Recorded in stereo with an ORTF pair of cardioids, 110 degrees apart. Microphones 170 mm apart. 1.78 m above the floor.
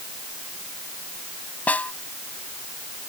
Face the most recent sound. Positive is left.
turn(degrees=10)